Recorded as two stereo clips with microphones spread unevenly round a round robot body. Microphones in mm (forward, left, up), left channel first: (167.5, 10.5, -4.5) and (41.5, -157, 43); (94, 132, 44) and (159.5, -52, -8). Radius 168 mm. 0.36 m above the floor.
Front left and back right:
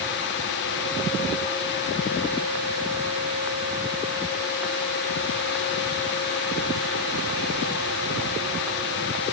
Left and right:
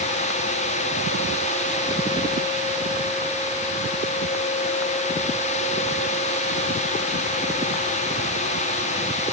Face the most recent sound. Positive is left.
No sound to turn to.